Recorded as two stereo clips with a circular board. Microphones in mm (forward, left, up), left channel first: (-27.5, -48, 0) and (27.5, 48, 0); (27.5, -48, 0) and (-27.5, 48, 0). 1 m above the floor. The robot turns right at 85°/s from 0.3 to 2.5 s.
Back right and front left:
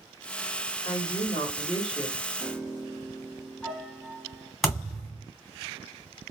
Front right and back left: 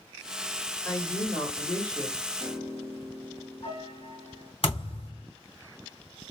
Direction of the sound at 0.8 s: 130° right.